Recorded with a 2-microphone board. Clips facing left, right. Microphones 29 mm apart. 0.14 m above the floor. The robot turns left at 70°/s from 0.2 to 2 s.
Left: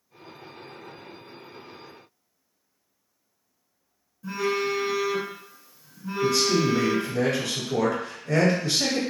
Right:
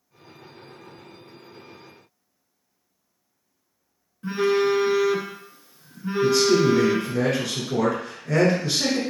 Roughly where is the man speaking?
Centre.